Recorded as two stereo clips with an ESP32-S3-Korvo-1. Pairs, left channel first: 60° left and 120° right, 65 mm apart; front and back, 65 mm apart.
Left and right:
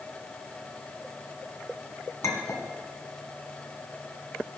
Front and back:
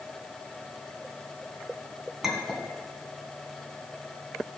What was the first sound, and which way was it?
A clink, 95° left.